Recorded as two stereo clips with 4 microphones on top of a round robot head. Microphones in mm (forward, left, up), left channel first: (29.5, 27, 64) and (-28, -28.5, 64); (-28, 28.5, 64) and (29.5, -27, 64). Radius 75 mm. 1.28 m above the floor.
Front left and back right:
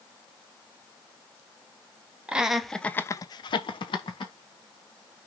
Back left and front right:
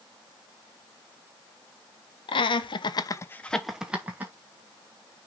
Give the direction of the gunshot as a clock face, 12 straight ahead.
No gunshot in this recording.